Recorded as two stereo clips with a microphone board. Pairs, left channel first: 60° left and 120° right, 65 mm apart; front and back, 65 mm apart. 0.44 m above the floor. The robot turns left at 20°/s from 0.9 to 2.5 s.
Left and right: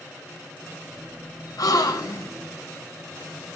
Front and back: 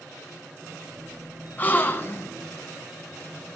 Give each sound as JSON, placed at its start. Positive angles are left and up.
{"t": 1.6, "sound": "a gasp", "azimuth_deg": 60, "distance_m": 0.8}